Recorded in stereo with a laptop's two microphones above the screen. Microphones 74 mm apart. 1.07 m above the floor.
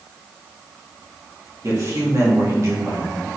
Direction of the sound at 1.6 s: 45° right (ahead or behind).